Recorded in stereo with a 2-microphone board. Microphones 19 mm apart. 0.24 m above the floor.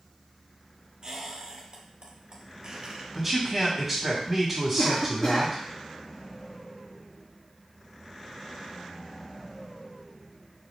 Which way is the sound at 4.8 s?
25° left (ahead or behind).